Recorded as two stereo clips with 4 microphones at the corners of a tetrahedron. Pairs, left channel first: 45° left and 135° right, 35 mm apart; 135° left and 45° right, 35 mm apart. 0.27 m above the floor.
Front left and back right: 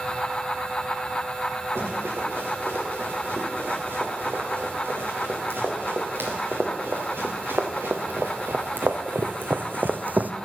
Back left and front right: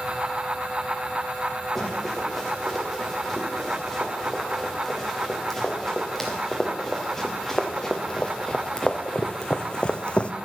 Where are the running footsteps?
140° right, 5 m; by 10.3 s 170° right, 0.7 m.